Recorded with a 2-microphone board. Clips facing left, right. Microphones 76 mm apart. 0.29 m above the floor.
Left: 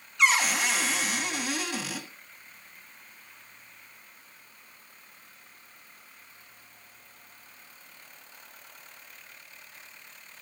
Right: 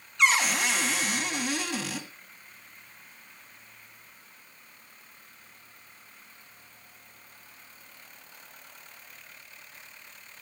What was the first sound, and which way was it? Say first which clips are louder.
A cupboard door: even; centre (ahead or behind).